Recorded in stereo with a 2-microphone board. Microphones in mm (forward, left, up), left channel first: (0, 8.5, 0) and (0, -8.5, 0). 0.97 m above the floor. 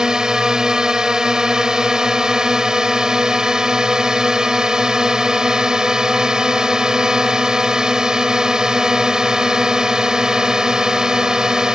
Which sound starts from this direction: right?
A drone, at 0.0 s.